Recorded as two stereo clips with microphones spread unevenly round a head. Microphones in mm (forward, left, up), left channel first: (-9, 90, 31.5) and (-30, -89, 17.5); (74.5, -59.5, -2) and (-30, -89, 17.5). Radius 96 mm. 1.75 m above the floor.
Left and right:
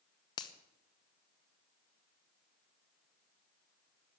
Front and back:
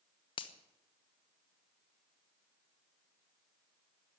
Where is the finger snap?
40° left, 0.9 m.